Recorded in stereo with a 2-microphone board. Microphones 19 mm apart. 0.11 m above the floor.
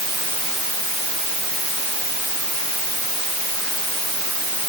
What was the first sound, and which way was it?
Only background noise.